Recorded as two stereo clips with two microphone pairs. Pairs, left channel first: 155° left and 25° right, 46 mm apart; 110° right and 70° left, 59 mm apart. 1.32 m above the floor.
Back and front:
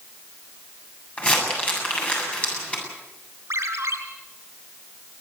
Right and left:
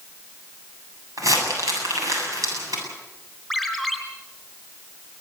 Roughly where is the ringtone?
Ahead.